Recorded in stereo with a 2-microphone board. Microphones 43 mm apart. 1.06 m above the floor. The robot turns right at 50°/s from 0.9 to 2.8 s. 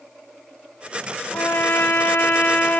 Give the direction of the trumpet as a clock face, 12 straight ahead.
10 o'clock.